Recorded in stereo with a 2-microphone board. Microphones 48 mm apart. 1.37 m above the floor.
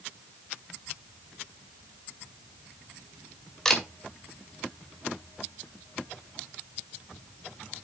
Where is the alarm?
No alarm in this recording.